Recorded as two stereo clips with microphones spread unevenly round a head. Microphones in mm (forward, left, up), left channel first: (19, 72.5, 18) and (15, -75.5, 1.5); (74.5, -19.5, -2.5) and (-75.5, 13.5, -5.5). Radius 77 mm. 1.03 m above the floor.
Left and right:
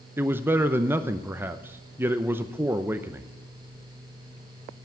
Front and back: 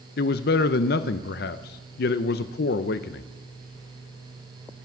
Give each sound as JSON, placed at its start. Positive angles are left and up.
{"t": 0.2, "sound": "a man speaking", "azimuth_deg": -20, "distance_m": 0.6}